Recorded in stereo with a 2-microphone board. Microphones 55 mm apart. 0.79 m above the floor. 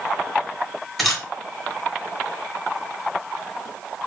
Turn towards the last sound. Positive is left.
turn(degrees=0)  # may be behind; listen again after turning